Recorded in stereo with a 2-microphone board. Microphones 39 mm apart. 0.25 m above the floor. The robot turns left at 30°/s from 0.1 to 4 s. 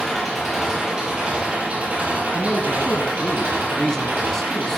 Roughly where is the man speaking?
Ahead left.